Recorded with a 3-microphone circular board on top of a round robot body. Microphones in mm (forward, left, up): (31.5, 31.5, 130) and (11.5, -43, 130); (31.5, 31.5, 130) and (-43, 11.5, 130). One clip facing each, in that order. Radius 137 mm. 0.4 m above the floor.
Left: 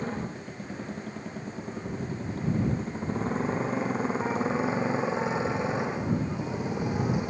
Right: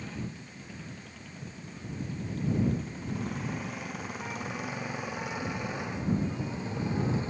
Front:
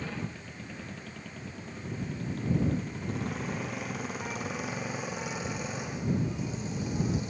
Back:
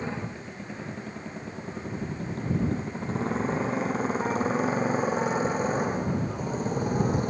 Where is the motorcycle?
130° left; by 7.3 s 150° left.